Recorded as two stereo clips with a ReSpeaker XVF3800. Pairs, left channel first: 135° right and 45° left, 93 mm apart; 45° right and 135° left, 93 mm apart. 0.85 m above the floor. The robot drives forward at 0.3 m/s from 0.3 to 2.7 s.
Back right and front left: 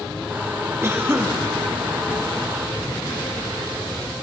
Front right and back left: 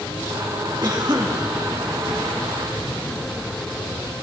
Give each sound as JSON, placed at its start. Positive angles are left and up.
{"t": 0.8, "sound": "a cough", "azimuth_deg": 100, "distance_m": 2.0}